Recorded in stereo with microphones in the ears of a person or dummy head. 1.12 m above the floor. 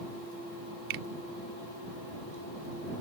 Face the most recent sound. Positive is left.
turn(degrees=-55)  # may be behind; listen again after turning